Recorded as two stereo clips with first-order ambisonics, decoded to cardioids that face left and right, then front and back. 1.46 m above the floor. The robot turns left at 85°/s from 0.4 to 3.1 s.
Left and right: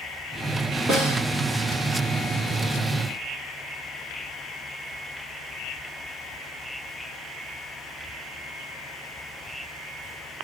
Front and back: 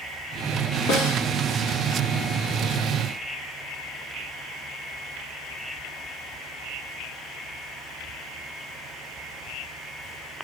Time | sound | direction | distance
0.9 | a snare drum | 20° right | 9 m